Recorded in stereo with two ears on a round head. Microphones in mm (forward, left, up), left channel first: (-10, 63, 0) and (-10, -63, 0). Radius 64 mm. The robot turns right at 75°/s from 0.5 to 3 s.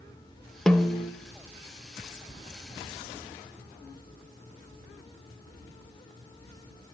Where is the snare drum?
5° left, 1.0 m; by 1.1 s 40° left, 1.0 m.